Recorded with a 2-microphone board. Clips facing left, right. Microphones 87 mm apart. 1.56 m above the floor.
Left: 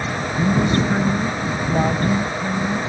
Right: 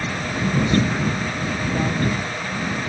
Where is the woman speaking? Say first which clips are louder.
Left 1 dB; 35° left (ahead or behind).